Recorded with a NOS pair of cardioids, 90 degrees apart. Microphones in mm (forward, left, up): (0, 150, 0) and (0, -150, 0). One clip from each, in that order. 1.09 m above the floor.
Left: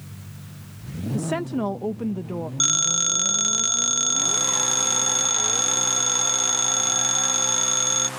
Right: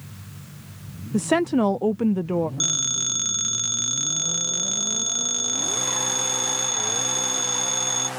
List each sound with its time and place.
1.1 s a woman speaking: 30° right
2.6 s a phone ringing: 30° left